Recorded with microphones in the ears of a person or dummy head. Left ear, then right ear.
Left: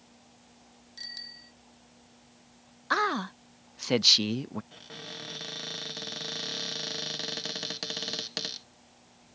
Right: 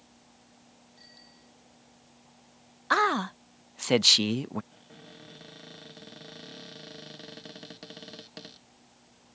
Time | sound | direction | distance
1.0 | a bicycle bell | 60° left (ahead or behind) | ?
2.9 | a man speaking | 15° right (ahead or behind) | ?
4.7 | a cupboard door | 40° left (ahead or behind) | ?